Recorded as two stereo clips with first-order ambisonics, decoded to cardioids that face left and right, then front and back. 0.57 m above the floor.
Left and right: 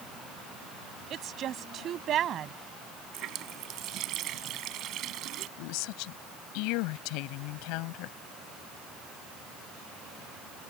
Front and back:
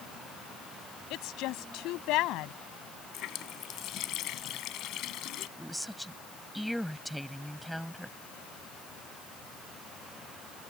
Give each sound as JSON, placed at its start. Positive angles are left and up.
{"t": 1.1, "sound": "a woman speaking", "azimuth_deg": -35}
{"t": 3.1, "sound": "a running tap", "azimuth_deg": -45}
{"t": 5.6, "sound": "a woman speaking", "azimuth_deg": 90}